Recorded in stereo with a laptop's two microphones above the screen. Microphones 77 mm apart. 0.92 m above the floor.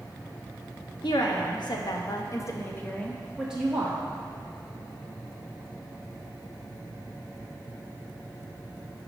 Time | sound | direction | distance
1.0 | a woman speaking | 80° left | 1.2 m